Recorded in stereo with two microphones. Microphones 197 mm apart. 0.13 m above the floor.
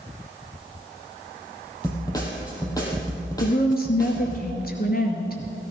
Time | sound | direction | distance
1.8 | a snare drum | 20° left (ahead or behind) | 4 m
3.4 | a woman speaking | 50° left (ahead or behind) | 2.5 m